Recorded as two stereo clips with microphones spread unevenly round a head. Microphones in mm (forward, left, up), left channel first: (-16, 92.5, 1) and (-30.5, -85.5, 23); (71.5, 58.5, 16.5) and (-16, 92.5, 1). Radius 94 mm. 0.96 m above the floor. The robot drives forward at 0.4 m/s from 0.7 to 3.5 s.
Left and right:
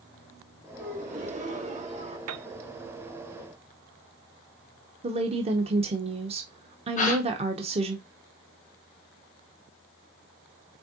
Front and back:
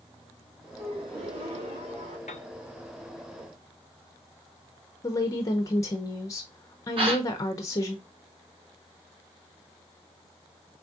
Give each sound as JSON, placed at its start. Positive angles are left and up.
{"t": 0.8, "sound": "a gasp", "azimuth_deg": -140, "distance_m": 1.3}
{"t": 2.3, "sound": "a piano", "azimuth_deg": -75, "distance_m": 0.7}
{"t": 5.0, "sound": "a woman speaking", "azimuth_deg": -60, "distance_m": 0.8}
{"t": 7.0, "sound": "a gasp", "azimuth_deg": 135, "distance_m": 2.5}